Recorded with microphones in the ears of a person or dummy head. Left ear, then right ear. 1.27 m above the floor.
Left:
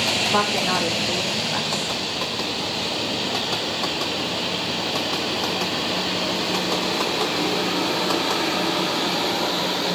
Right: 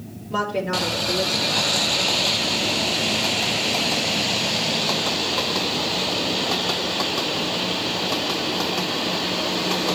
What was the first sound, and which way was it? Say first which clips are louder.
A woman speaking: left 4 dB; 55° left (ahead or behind).